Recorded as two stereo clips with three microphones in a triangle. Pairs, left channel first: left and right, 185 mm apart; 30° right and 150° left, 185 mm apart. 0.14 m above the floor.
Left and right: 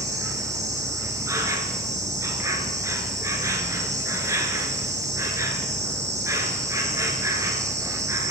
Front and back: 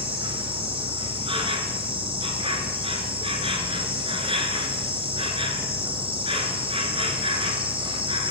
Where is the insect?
160° right, 1.3 m.